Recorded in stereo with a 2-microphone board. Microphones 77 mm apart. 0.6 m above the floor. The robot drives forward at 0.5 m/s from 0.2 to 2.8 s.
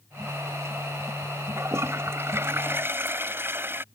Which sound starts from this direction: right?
A toilet flushing, at 1.6 s.